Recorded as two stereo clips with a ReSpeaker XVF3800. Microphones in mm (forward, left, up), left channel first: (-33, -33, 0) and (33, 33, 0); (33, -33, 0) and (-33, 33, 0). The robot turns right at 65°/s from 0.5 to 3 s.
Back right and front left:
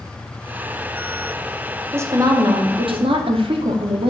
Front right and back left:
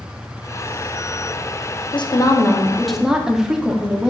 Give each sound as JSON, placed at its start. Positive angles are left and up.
{"t": 1.9, "sound": "a woman speaking", "azimuth_deg": -20, "distance_m": 0.6}